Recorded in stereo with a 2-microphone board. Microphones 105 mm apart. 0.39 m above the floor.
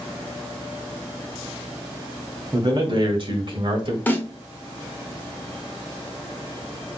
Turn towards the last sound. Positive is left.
turn(degrees=20)  # may be behind; listen again after turning